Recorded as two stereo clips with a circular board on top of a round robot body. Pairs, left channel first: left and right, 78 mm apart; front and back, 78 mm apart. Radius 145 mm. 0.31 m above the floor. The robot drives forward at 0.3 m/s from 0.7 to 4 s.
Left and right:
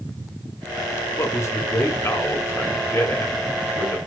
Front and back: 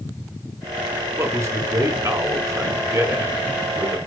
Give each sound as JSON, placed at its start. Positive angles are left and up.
{"t": 1.2, "sound": "a man speaking", "azimuth_deg": 135, "distance_m": 2.0}